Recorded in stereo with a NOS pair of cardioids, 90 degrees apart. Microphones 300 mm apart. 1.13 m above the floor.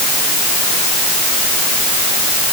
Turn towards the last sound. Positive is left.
No sound to turn to.